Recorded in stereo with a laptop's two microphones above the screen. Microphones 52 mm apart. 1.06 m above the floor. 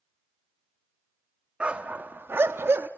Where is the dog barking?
20° right (ahead or behind), 0.7 m; by 2.9 s 45° right (ahead or behind), 0.7 m.